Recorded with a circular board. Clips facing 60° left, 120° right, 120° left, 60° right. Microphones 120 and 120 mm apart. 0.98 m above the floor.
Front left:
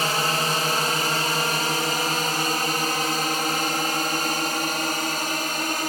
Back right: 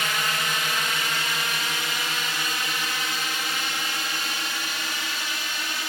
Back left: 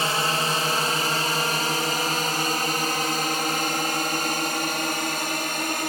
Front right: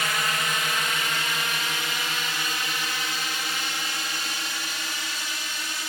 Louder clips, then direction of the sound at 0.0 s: Front left 4 dB, back left 4 dB; 85° left.